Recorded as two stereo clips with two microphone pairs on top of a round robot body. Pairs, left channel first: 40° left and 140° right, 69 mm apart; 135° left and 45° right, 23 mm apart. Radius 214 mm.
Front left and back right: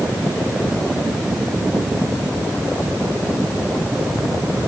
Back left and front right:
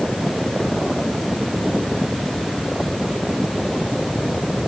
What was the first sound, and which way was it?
Only background noise.